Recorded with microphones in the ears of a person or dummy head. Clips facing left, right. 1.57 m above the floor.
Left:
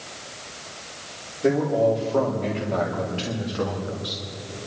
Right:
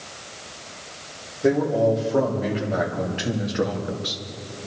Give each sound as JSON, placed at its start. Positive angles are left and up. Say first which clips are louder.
{"t": 1.4, "sound": "a man speaking", "louder": "right 1 dB", "side_deg": 0, "distance_m": 3.5}